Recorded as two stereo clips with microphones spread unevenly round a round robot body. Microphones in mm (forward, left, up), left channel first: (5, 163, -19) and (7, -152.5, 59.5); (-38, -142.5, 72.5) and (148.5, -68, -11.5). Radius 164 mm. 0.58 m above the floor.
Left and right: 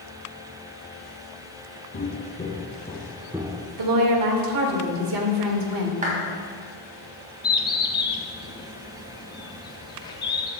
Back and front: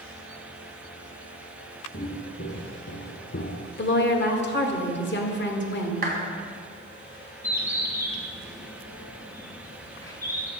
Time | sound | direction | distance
1.9 | footsteps | 155° left | 2 m
3.8 | a woman speaking | 115° right | 1.9 m
6.0 | a clap | 20° right | 3.5 m
7.4 | a bird | 90° left | 1.2 m